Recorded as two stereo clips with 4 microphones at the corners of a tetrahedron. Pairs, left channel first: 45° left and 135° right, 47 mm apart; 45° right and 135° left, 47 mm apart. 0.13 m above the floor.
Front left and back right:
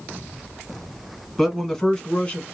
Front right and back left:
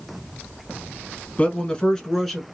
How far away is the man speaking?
About 1.3 m.